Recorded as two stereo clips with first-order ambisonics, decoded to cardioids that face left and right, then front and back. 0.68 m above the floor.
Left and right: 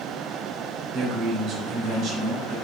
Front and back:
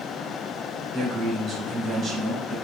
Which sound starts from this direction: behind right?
A man speaking, at 0.9 s.